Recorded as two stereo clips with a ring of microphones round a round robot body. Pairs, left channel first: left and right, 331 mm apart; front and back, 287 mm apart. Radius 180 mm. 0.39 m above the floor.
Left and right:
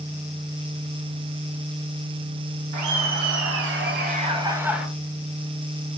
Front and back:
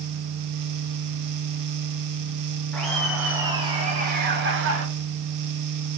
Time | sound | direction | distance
2.7 | laughter | 85° right | 1.5 m